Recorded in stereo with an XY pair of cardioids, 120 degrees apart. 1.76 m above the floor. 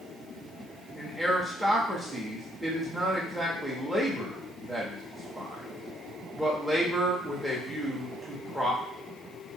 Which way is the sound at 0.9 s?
5° right.